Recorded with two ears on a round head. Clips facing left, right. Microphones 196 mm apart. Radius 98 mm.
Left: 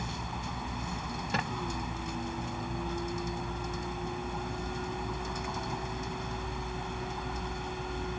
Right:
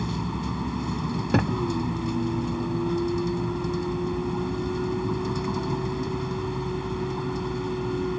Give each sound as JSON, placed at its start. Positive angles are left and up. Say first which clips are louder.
{"t": 0.0, "sound": "a vehicle", "louder": "right 10 dB", "side_deg": -70}
{"t": 1.3, "sound": "a thud", "louder": "right 13 dB", "side_deg": -40}